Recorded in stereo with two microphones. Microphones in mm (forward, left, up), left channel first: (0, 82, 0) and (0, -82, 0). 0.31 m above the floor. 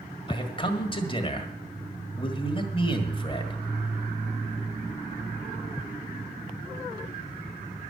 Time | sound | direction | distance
0.3 | a man speaking | 30° left (ahead or behind) | 1.6 m